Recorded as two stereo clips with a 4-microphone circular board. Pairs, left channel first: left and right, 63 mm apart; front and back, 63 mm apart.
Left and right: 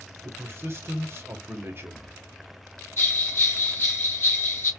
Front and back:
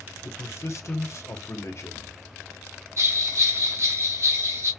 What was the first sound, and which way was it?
A man speaking, 40° right.